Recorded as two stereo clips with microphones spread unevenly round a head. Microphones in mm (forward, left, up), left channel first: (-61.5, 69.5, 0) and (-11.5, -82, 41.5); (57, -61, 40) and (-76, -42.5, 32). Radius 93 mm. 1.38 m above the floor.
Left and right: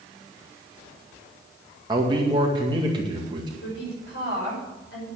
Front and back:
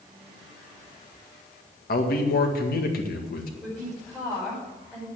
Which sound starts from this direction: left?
A woman speaking, at 3.6 s.